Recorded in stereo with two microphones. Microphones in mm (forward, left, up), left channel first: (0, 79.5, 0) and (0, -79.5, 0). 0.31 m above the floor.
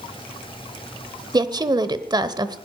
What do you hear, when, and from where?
1.3 s a woman speaking: 25° right (ahead or behind), 0.9 m